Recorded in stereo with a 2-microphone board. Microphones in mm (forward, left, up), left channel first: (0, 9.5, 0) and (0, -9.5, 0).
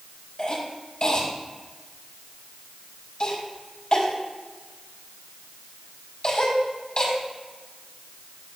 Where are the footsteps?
I don't hear footsteps.